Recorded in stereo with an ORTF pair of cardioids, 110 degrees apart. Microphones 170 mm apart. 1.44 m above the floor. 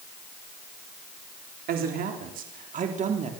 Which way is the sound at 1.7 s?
65° right.